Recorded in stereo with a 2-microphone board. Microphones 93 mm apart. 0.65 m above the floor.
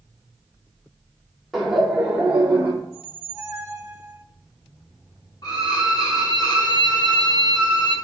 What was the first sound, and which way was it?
Laughter, centre (ahead or behind).